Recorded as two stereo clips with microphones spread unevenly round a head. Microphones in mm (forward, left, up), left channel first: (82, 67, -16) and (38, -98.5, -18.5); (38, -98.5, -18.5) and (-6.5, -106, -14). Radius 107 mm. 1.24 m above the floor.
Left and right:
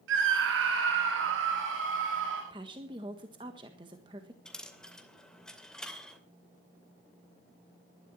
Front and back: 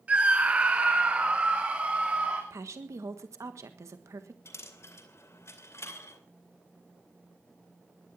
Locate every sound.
0.1 s a scream: 110° right, 1.1 m
2.5 s a woman speaking: 175° right, 1.4 m
4.5 s a dropped coin: 10° right, 2.5 m